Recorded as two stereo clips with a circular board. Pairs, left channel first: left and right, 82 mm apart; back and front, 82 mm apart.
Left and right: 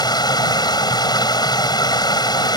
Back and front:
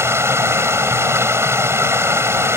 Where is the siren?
I don't hear a siren.